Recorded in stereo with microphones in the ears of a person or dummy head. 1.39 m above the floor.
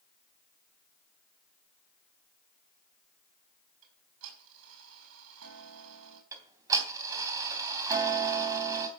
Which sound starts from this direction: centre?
Ticking, at 6.3 s.